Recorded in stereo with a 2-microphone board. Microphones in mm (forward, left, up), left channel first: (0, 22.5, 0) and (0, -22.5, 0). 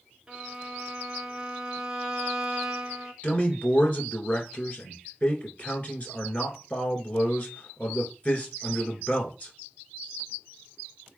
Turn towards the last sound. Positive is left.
turn(degrees=35)  # may be behind; listen again after turning